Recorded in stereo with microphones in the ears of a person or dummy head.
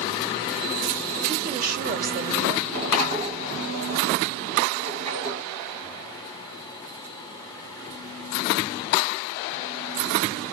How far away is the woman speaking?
About 0.9 m.